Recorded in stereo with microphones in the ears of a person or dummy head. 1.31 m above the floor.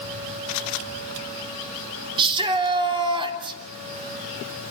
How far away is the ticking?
I don't hear ticking.